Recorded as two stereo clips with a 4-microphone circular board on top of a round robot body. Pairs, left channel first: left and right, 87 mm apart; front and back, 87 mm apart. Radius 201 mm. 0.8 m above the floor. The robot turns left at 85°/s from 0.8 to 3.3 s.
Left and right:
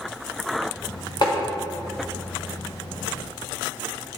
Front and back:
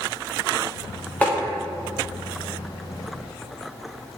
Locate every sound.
1.2 s tapping: 75° left, 1.6 m; by 1.3 s 60° left, 1.6 m